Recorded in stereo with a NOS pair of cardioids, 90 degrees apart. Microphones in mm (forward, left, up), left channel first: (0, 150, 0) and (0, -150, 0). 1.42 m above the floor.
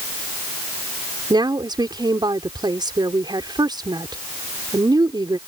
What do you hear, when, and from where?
1.3 s a woman speaking: 15° right